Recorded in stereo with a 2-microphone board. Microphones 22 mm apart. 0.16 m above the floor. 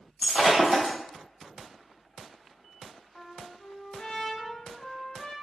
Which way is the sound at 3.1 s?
40° left (ahead or behind).